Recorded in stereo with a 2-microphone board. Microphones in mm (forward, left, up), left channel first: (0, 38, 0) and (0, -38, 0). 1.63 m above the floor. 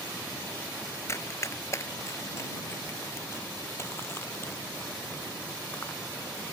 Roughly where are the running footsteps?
Left.